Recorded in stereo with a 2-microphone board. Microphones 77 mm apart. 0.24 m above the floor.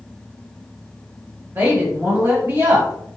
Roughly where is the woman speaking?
Right.